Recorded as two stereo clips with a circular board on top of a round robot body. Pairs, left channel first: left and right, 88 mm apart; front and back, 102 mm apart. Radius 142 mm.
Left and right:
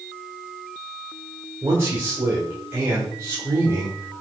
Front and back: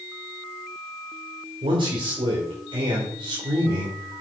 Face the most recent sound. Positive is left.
turn(degrees=-150)